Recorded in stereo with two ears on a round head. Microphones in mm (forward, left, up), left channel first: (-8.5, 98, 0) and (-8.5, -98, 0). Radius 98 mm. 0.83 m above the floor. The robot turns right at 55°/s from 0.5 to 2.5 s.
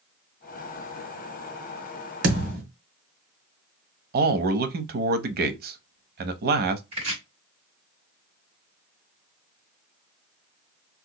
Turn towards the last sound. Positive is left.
turn(degrees=-25)  # may be behind; listen again after turning